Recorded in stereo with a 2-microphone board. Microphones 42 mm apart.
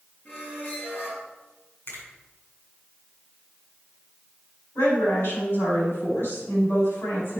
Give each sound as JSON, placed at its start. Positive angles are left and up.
{"t": 0.2, "sound": "a squeak", "side_deg": 50, "distance_m": 4.0}
{"t": 1.9, "sound": "a finger snap", "side_deg": 60, "distance_m": 4.5}
{"t": 4.8, "sound": "a woman speaking", "side_deg": 75, "distance_m": 5.0}